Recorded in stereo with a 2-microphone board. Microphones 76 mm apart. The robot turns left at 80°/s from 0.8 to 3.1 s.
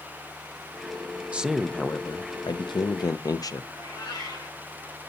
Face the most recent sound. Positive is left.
turn(degrees=65)  # may be behind; listen again after turning